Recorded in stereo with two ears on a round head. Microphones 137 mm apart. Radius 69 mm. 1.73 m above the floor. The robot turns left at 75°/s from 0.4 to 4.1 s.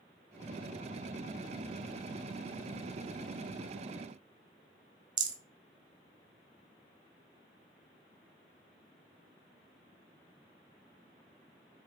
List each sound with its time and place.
5.2 s a rattle: 30° right (ahead or behind), 0.5 m